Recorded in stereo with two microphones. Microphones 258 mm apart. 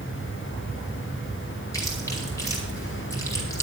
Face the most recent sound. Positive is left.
turn(degrees=10)  # may be behind; listen again after turning